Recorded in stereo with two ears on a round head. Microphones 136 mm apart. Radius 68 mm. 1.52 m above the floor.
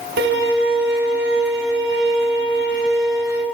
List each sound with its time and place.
0.2 s a violin: 80° right, 8.5 m